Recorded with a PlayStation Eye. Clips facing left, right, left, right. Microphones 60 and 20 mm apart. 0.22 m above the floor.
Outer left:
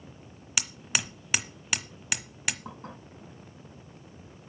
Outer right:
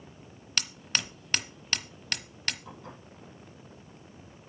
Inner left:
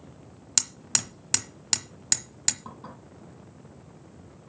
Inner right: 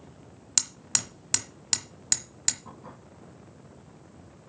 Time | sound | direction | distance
0.6 | hammering | 10° left (ahead or behind) | 1.1 m
2.6 | dishes clattering | 40° left (ahead or behind) | 5 m